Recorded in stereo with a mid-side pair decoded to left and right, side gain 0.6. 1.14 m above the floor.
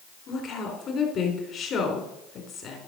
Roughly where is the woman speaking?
Ahead left.